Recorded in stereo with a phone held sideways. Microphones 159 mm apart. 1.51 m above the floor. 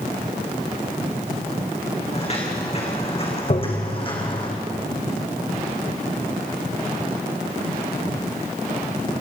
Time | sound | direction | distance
2.1 | footsteps | 40° left (ahead or behind) | 5.5 m
3.5 | tapping | 50° left (ahead or behind) | 1.8 m